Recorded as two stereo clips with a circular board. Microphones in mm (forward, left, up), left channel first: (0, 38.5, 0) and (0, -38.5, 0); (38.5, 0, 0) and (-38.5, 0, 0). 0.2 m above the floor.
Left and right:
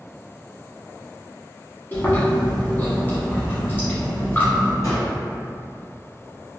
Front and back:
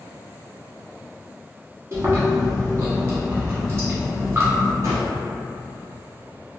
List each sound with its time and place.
1.9 s chewing: 145° left, 0.9 m
4.8 s a gunshot: 140° left, 1.9 m